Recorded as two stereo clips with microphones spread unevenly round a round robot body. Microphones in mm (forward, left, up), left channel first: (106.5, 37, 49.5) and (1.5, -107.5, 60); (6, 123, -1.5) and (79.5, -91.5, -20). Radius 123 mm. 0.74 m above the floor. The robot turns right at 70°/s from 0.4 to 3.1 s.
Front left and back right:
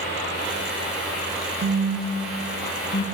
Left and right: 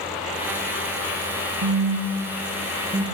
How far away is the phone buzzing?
About 0.7 m.